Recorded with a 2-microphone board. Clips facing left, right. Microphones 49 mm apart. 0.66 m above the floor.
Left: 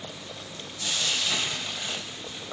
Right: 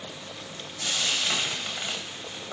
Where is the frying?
40° right (ahead or behind), 0.6 m.